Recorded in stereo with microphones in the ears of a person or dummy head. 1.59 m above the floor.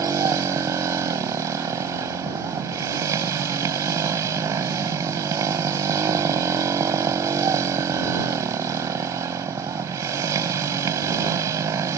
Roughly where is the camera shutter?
I don't hear a camera shutter.